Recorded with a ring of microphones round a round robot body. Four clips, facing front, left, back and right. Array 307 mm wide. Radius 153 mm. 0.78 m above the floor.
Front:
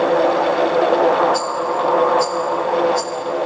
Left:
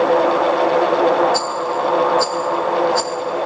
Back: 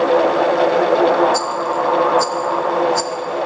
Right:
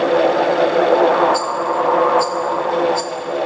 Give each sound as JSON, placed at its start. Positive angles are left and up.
{"t": 1.3, "sound": "a rattle", "azimuth_deg": 130, "distance_m": 0.9}